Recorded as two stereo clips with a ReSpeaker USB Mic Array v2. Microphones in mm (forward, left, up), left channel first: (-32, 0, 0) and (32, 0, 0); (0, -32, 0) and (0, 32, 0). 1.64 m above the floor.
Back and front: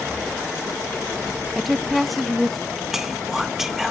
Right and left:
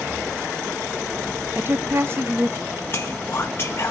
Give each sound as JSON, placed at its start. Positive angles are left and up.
{"t": 1.6, "sound": "a woman speaking", "azimuth_deg": 90, "distance_m": 0.6}
{"t": 2.9, "sound": "whispering", "azimuth_deg": -80, "distance_m": 0.6}